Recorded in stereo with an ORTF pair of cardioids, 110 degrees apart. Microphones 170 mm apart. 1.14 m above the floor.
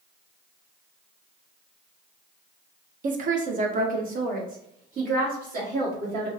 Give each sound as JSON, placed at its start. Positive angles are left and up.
{"t": 3.0, "sound": "a woman speaking", "azimuth_deg": -55, "distance_m": 0.8}